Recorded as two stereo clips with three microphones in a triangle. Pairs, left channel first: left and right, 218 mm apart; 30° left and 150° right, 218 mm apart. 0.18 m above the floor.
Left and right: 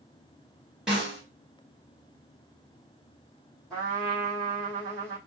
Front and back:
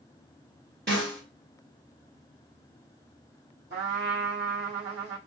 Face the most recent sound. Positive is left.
turn(degrees=175)